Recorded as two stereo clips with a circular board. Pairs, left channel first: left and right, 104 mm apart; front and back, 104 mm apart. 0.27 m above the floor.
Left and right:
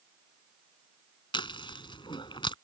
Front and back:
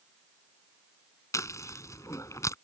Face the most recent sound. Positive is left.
turn(degrees=55)